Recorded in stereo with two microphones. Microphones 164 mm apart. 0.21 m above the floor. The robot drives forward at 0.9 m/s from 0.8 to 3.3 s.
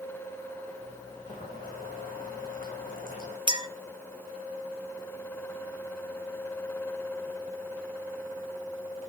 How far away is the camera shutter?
I don't hear a camera shutter.